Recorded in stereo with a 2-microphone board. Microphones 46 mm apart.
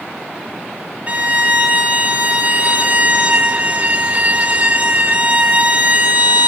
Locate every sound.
1.1 s a violin: 35° right (ahead or behind), 1.8 m